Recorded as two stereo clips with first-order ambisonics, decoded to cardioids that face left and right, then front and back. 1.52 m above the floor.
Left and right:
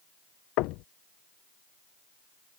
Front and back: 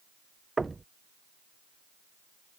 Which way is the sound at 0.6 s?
100° left.